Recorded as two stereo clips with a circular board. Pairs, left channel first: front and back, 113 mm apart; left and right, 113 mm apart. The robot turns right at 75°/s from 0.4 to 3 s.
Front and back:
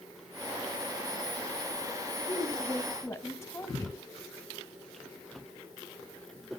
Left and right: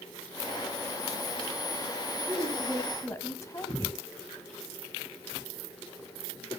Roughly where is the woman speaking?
Ahead.